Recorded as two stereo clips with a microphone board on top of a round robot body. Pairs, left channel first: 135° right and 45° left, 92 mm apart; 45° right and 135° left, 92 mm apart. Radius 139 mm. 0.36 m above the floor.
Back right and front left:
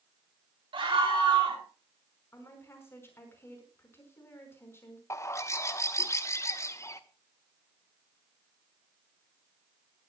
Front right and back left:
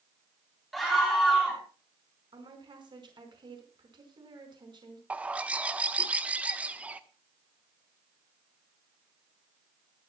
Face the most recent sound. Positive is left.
turn(degrees=-160)